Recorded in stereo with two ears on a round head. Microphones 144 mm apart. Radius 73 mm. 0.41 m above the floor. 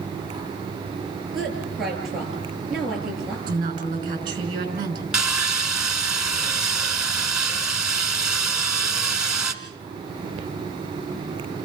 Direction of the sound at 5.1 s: 5° right (ahead or behind).